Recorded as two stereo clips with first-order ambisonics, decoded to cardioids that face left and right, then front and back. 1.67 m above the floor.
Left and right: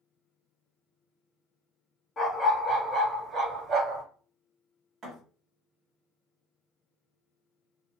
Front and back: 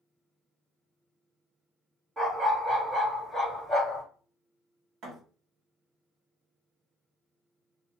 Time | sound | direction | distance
2.2 | a dog barking | 140° left | 1.1 m
5.0 | a thud | 150° right | 1.5 m